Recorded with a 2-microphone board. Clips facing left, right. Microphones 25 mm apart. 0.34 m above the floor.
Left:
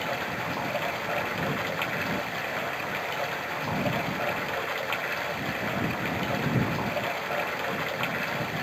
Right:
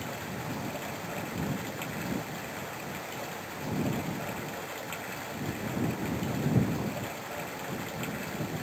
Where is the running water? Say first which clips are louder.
Left 7 dB; 35° left (ahead or behind).